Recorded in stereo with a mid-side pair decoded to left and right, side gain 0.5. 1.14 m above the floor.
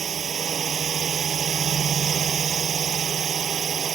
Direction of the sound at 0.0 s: 40° right.